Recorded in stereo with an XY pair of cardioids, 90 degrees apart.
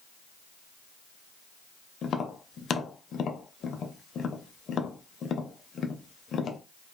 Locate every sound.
2.0 s tapping: 60° left, 0.5 m